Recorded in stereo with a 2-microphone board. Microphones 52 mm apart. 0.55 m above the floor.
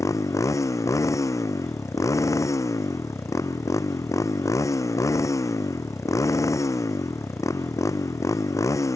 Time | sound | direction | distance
0.0 | a motorcycle | 80° left | ?